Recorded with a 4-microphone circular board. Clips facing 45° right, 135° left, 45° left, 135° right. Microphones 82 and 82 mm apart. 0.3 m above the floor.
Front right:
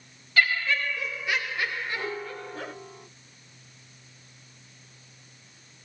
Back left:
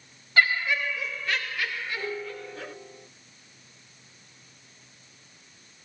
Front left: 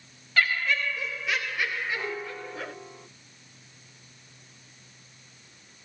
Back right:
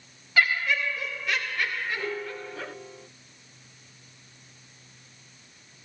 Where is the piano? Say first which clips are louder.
Even, back right 1 dB; 20° right, 1.2 m.